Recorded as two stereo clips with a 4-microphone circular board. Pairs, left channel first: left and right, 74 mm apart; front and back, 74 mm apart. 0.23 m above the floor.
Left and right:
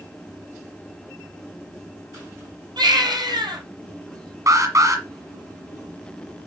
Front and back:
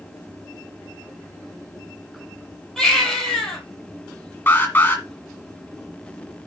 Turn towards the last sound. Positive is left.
turn(degrees=-60)